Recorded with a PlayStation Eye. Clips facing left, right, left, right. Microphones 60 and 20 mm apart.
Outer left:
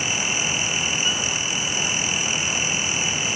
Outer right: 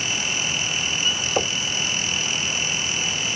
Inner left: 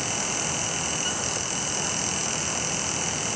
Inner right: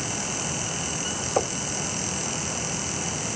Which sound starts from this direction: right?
Knocking, at 1.4 s.